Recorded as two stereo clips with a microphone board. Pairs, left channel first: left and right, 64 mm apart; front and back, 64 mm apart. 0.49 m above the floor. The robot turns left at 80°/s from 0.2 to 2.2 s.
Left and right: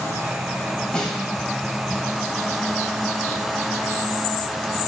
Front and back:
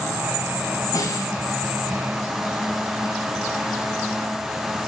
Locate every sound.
0.9 s a snare drum: 20° left, 3.5 m; by 1.3 s 10° right, 3.5 m